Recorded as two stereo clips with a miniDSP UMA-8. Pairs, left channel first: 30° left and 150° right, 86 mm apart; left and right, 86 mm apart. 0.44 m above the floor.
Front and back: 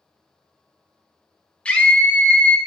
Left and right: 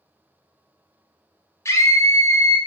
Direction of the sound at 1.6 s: 95° left.